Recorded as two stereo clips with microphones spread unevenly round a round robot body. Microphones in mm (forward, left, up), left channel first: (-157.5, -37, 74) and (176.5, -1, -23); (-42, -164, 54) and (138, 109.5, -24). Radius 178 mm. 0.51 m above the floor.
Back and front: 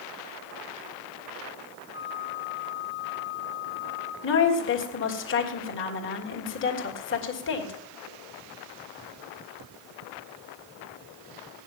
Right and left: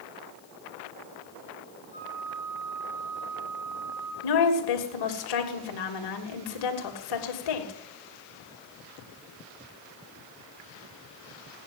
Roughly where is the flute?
Ahead.